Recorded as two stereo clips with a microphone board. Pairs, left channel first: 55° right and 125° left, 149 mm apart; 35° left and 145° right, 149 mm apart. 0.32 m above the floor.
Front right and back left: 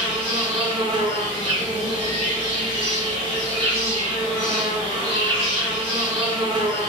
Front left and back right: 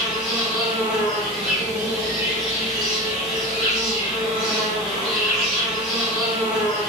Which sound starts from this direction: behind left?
An insect, at 0.0 s.